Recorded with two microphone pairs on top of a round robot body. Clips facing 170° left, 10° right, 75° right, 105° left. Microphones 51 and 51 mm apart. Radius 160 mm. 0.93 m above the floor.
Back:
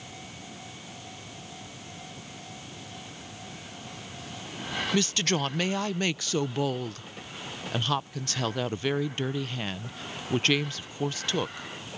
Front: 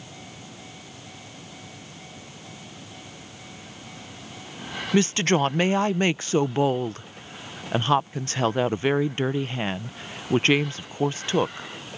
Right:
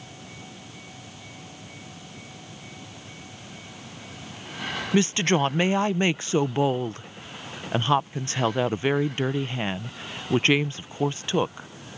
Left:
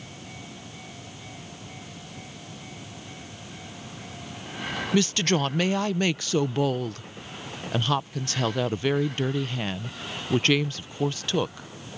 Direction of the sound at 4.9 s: 40° right.